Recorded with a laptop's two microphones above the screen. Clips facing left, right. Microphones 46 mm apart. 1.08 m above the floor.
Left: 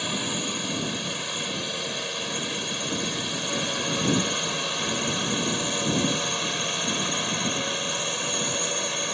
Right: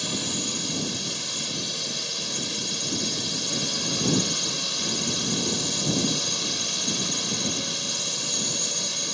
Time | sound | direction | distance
0.0 | a drone | 20° left (ahead or behind) | ?